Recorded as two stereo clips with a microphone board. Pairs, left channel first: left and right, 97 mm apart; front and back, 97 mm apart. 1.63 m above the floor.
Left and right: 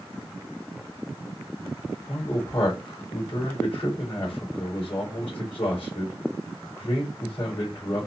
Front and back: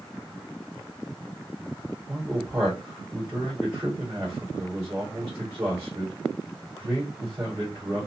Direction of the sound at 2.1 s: 125° left.